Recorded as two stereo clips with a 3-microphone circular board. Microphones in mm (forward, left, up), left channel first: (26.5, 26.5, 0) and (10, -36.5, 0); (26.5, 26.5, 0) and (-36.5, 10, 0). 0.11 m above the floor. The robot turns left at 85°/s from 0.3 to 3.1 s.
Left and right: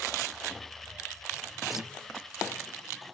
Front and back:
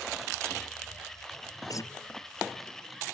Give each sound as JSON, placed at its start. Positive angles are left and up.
{"t": 1.7, "sound": "a guitar", "azimuth_deg": -15}